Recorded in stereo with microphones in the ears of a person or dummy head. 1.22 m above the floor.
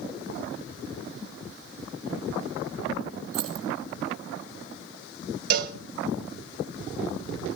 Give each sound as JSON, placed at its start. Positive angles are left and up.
{"t": 3.3, "sound": "keys jangling", "side_deg": -80, "distance_m": 5.0}
{"t": 5.5, "sound": "a cowbell", "side_deg": -55, "distance_m": 1.7}